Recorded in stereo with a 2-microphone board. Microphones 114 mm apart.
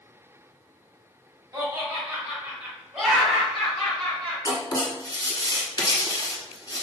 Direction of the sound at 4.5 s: 40° left (ahead or behind).